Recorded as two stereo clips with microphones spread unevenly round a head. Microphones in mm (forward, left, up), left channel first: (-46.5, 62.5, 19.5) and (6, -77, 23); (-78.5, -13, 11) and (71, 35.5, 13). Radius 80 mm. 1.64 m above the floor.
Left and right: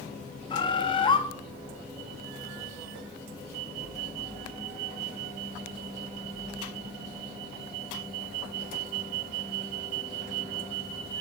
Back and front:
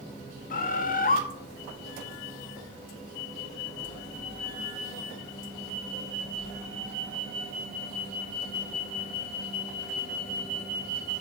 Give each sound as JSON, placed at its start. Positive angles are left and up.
{"t": 0.5, "sound": "a bird", "azimuth_deg": 165, "distance_m": 1.8}